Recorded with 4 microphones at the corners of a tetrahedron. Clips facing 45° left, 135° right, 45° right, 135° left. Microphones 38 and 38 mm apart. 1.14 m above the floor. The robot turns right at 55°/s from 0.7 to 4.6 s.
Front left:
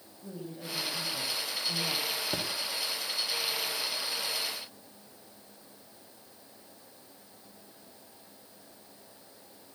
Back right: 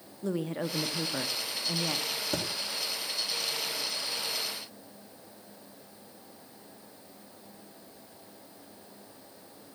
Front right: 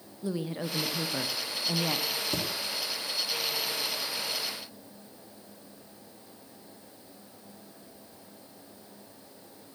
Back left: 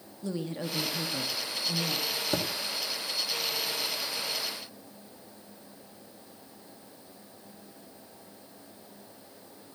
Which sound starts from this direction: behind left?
A thud, at 2.3 s.